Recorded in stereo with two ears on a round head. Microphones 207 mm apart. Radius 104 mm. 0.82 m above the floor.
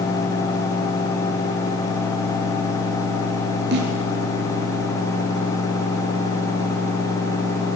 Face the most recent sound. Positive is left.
turn(degrees=-50)  # may be behind; listen again after turning